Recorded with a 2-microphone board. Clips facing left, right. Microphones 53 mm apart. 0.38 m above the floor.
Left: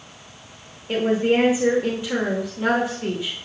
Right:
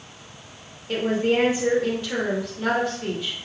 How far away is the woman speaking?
About 0.9 m.